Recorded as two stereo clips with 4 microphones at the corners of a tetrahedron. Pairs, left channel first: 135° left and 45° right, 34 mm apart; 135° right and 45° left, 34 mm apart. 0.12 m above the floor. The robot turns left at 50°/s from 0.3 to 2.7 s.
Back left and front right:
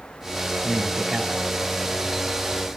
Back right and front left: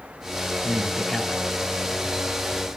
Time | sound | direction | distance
0.6 | a man speaking | 20° right | 1.2 m